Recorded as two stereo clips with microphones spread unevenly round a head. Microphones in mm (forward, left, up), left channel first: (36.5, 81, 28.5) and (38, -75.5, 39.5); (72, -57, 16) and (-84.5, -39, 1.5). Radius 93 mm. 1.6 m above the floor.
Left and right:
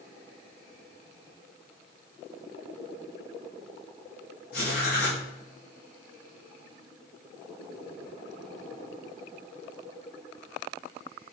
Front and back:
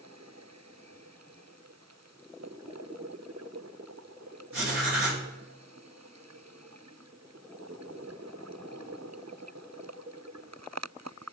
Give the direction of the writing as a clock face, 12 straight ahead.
8 o'clock.